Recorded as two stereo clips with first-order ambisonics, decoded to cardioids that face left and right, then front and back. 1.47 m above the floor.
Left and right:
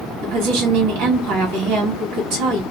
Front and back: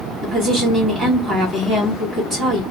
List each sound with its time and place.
0.2 s a woman speaking: 90° right, 1.8 m